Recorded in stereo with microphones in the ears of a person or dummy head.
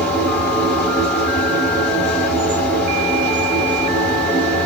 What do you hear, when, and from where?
0.0 s a machine running: 10° left (ahead or behind), 1.6 m